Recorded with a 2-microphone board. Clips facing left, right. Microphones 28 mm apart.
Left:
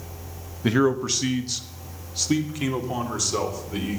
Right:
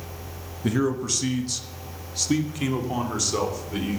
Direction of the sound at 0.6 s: 30° left (ahead or behind).